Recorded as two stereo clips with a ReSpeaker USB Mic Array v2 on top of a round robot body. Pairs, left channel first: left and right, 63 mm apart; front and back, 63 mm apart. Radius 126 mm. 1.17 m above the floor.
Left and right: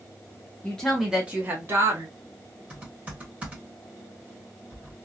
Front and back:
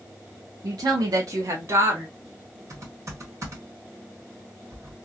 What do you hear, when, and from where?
0.6 s a woman speaking: 160° left, 0.8 m; by 2.1 s 130° right, 1.2 m
2.7 s typing on a keyboard: 155° right, 1.4 m